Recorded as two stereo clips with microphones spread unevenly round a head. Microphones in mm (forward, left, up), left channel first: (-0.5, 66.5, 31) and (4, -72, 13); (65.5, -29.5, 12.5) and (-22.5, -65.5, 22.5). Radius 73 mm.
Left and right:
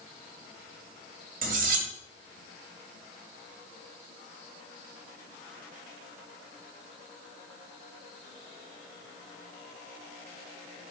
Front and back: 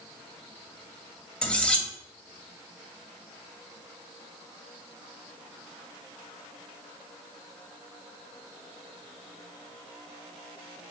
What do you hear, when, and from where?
1.4 s cutlery clinking: 55° right, 2 m